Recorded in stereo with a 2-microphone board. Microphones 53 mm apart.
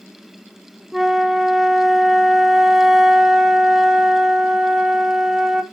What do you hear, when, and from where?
0.9 s a flute: 10° right (ahead or behind), 0.7 m